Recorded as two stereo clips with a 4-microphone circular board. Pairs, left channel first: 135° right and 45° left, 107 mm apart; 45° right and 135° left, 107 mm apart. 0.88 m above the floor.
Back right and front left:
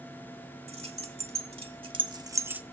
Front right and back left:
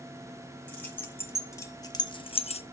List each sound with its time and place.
0.7 s keys jangling: 30° left, 1.7 m; by 2.6 s 35° right, 0.6 m